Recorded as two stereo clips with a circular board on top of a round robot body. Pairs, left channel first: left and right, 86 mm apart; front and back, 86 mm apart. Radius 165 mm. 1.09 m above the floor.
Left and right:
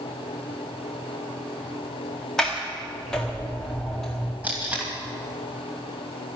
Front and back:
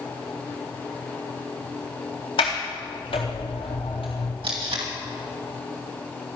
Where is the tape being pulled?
165° right, 1.5 m.